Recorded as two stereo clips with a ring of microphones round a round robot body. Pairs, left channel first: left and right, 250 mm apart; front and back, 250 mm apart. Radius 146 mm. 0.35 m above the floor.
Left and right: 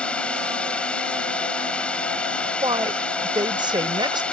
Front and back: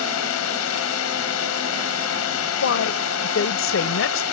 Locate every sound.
0.0 s a drone: 5° left
2.6 s a woman speaking: 20° right